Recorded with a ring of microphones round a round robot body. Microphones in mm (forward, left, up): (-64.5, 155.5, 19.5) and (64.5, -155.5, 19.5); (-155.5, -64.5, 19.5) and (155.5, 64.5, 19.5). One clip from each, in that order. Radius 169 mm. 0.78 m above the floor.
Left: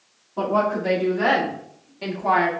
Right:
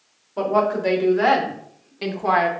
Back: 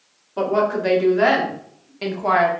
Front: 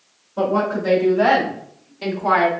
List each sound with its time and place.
0.4 s a woman speaking: 125° right, 2.0 m; by 2.5 s 80° right, 0.9 m